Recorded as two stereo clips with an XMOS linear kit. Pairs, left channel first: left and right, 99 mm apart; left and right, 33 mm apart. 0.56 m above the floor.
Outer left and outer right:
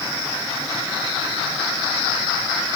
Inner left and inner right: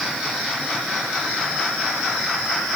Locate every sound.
Only background noise.